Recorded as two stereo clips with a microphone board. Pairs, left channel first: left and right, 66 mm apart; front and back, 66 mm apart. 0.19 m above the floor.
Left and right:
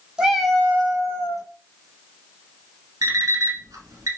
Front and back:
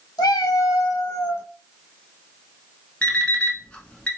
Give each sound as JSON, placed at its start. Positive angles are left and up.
{"t": 0.2, "sound": "a cat meowing", "azimuth_deg": -10, "distance_m": 0.6}
{"t": 3.0, "sound": "an alarm clock", "azimuth_deg": -70, "distance_m": 0.7}